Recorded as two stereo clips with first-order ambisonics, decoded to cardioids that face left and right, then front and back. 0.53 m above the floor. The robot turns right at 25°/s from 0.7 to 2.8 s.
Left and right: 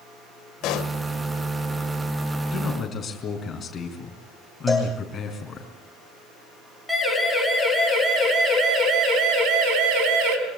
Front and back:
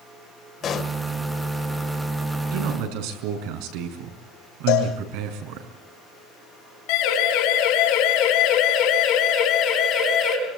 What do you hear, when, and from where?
0.6 s a pop: 60° left, 1.4 m; by 1.0 s 65° left, 1.4 m
2.5 s a man speaking: 155° left, 5 m; by 5.7 s 160° left, 5 m
4.7 s a cowbell: 5° right, 6.5 m
6.9 s a siren: 5° right, 4.5 m; by 10.4 s 60° right, 4 m